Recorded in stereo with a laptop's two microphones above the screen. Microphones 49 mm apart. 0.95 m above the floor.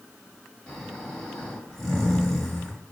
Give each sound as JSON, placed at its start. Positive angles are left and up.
{"t": 0.7, "sound": "snoring", "side_deg": 10, "distance_m": 1.4}